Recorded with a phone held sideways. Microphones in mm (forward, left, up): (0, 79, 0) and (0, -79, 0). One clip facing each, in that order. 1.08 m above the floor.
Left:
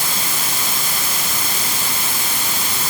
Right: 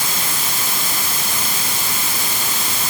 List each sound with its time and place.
Only background noise.